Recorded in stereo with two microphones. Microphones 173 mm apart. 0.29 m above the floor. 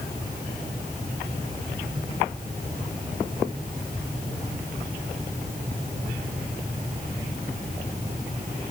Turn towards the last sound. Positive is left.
No sound to turn to.